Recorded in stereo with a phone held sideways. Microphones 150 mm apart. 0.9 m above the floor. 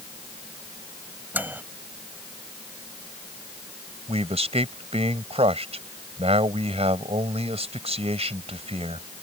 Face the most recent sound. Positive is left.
turn(degrees=-45)  # may be behind; listen again after turning